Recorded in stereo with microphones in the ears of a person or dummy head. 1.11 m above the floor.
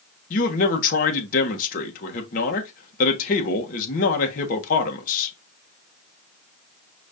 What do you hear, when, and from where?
0.3 s a man speaking: 50° left (ahead or behind), 1.2 m